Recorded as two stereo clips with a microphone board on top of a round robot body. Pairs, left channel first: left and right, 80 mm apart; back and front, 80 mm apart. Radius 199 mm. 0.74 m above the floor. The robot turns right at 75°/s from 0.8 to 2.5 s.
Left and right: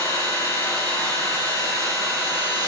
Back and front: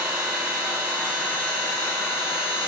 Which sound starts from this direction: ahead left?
An engine running, at 0.0 s.